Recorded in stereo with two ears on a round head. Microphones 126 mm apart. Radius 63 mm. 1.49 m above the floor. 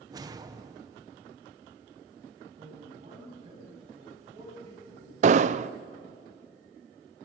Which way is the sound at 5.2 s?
55° right (ahead or behind).